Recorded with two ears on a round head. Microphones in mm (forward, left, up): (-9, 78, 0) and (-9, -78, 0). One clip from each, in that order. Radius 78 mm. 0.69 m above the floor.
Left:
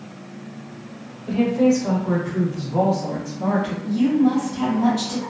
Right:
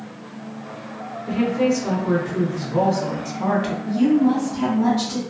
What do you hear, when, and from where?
1.3 s a woman speaking: centre (ahead or behind), 1.8 m; by 3.7 s 45° right (ahead or behind), 0.8 m
3.8 s a woman speaking: 25° left (ahead or behind), 1.2 m